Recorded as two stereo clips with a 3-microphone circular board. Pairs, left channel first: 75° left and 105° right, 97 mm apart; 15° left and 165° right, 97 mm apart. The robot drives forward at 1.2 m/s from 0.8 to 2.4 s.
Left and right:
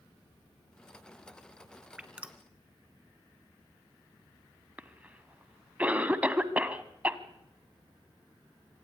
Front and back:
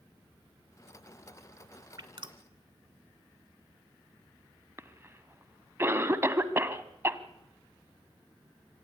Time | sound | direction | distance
2.0 | dripping | straight behind | 1.0 m
4.8 | a cough | 160° right | 1.1 m